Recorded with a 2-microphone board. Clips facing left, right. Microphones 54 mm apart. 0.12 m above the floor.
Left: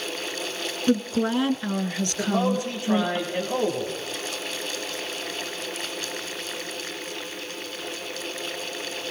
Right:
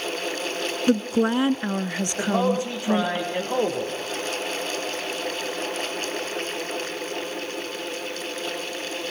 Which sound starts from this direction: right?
A man speaking, at 2.2 s.